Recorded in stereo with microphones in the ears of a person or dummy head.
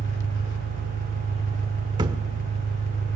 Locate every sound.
0.0 s an engine running: 60° left (ahead or behind), 1.6 m
2.0 s a thud: 25° right (ahead or behind), 1.6 m